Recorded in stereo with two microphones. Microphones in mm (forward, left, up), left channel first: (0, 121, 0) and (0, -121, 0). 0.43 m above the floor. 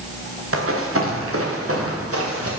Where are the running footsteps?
65° right (ahead or behind), 3.5 m; by 2.5 s 75° right (ahead or behind), 4.5 m.